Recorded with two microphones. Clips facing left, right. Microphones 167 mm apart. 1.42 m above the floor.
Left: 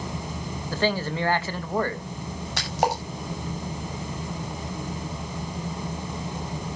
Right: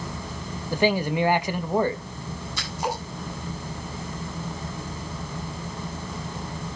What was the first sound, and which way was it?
A man speaking, 15° right (ahead or behind).